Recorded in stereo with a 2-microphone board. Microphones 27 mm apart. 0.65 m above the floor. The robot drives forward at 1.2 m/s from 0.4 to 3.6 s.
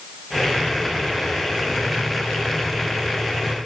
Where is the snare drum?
I don't hear a snare drum.